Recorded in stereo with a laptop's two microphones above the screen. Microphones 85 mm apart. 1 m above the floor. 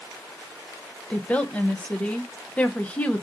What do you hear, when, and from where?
1.1 s a woman speaking: 15° left (ahead or behind), 0.5 m